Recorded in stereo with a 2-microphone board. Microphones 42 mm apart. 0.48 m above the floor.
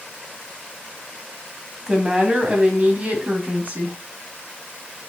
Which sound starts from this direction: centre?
A woman speaking, at 1.9 s.